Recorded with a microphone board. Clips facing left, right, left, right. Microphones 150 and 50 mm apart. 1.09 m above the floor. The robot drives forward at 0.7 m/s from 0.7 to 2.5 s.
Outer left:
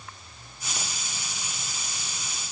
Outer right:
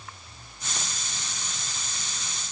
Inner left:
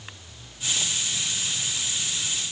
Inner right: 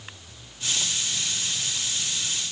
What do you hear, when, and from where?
Only background noise.